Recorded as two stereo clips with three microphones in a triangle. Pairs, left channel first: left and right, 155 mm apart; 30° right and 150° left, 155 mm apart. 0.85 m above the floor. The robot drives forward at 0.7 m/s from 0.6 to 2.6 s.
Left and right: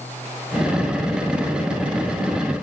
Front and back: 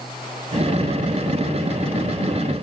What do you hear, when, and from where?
Only background noise.